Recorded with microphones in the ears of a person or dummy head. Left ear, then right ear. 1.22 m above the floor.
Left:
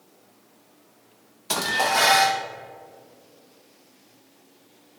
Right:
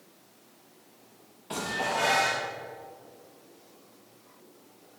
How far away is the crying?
I don't hear crying.